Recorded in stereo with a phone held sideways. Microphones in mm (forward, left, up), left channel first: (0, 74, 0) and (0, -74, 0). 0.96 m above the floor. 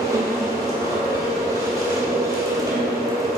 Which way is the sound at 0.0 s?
25° right (ahead or behind).